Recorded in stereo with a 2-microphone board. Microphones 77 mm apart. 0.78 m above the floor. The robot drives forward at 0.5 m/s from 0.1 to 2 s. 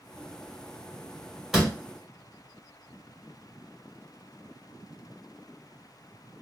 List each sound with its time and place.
1.5 s a door slam: 5° right (ahead or behind), 1.5 m